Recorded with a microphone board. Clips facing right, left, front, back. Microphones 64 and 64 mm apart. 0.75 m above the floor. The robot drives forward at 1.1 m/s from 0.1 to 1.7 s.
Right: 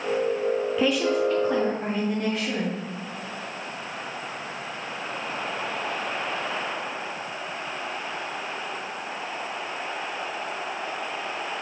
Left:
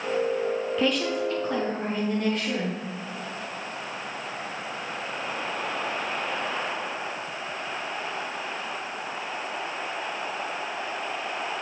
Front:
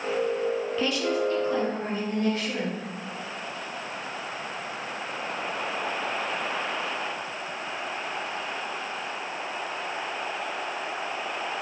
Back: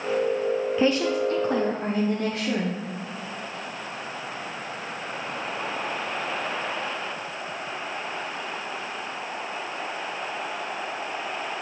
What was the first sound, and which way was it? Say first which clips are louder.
A woman speaking: right 3 dB, back 4 dB; 160° right.